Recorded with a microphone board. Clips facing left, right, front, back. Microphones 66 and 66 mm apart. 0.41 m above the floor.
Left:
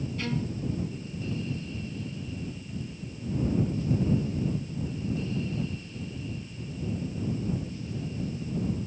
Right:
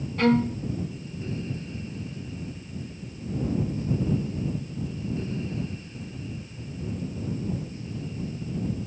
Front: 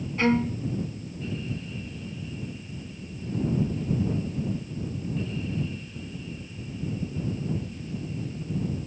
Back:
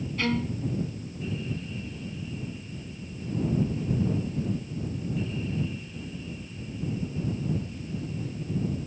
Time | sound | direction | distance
0.2 | a violin | 65° right | ?